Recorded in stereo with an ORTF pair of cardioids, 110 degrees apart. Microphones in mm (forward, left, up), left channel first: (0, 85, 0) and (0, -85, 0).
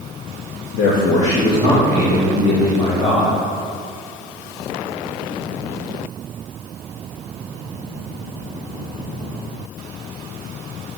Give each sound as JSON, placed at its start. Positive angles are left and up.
{"t": 0.7, "sound": "a man speaking", "azimuth_deg": 65, "distance_m": 1.2}